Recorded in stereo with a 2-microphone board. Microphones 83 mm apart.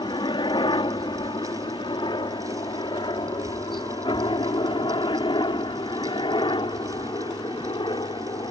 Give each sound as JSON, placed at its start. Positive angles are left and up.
{"t": 0.0, "sound": "a helicopter", "side_deg": 75}